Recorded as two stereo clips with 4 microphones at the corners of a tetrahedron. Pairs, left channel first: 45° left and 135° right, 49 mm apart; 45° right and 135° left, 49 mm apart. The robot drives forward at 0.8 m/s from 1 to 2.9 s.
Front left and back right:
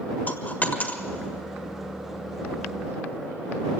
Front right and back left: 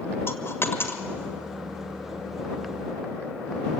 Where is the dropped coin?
10° right, 1.5 m.